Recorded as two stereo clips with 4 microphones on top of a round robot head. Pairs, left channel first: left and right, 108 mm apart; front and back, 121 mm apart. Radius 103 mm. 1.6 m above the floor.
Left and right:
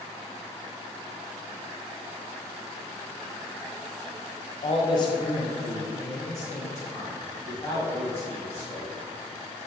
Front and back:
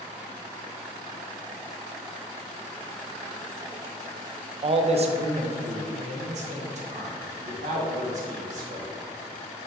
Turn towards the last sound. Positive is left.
turn(degrees=160)